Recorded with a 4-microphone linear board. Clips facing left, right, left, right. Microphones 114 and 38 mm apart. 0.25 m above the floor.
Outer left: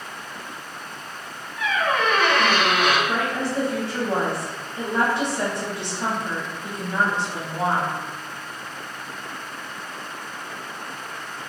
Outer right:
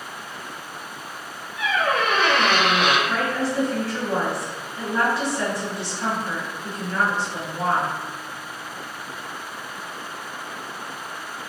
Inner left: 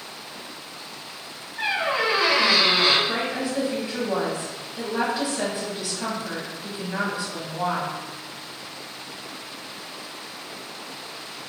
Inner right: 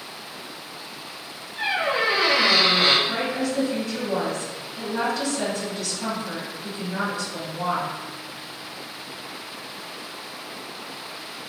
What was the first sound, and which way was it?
A squeak, 75° right (ahead or behind).